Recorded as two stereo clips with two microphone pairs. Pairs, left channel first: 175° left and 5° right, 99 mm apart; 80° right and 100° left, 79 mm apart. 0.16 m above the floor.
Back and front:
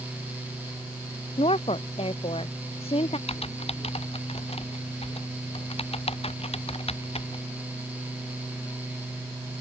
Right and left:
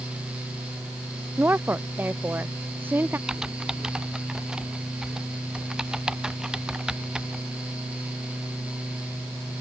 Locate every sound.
1.4 s a woman speaking: 165° left
3.3 s typing on a keyboard: straight behind